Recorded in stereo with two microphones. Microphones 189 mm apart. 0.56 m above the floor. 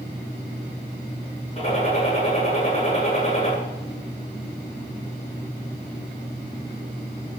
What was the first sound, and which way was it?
A gunshot, 35° left (ahead or behind).